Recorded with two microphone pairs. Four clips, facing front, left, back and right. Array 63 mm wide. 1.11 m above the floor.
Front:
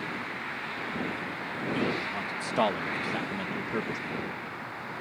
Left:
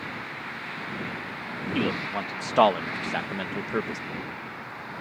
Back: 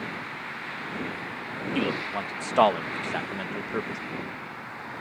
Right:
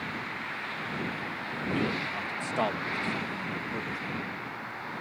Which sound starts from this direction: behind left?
A man speaking, at 1.8 s.